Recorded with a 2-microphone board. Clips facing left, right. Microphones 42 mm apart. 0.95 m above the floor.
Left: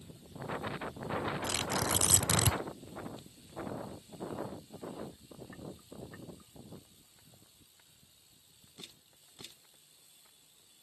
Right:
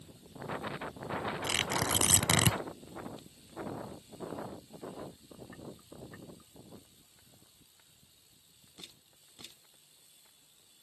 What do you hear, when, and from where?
1.4 s tearing paper: 60° right (ahead or behind)